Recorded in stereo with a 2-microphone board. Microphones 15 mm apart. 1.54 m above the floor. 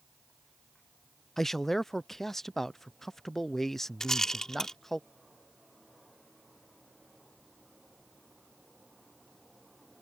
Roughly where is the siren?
I don't hear a siren.